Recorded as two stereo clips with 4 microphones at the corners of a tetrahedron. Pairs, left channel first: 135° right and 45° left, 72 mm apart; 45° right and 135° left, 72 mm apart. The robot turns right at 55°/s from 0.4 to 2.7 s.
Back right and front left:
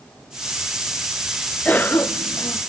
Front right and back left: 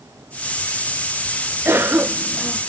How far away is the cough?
About 0.8 m.